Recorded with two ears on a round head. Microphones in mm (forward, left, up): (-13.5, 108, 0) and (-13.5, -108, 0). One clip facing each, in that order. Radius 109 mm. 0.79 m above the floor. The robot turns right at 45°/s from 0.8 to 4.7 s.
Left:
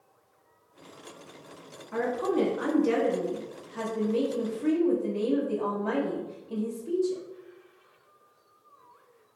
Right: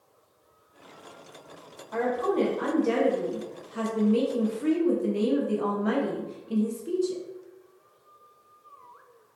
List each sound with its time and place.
1.9 s a woman speaking: 110° left, 1.0 m; by 7.2 s 125° right, 1.0 m